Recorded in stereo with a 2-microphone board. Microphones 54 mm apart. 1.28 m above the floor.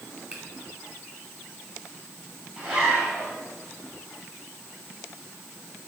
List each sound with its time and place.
0.3 s a finger snap: 20° right (ahead or behind), 4 m
2.6 s a zipper: 15° right (ahead or behind), 5.5 m